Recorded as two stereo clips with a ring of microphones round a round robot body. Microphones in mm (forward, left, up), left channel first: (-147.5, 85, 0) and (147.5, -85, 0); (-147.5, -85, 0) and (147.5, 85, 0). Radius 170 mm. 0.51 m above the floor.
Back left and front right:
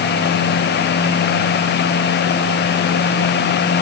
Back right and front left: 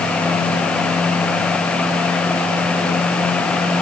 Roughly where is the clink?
I don't hear a clink.